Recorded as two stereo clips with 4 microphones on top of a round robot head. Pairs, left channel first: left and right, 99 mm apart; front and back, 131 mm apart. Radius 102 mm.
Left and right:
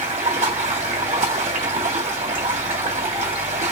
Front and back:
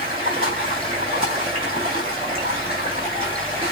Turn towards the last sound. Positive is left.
turn(degrees=-120)